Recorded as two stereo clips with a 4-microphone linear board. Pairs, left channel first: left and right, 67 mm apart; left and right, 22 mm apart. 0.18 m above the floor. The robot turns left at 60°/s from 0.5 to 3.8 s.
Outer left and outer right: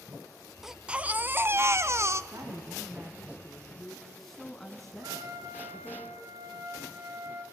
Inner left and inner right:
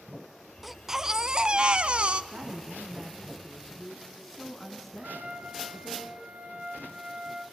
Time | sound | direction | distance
0.6 | a baby crying | 5° right | 0.7 m
2.3 | a woman speaking | 95° right | 2 m
5.0 | a trumpet | 60° right (ahead or behind) | 1.6 m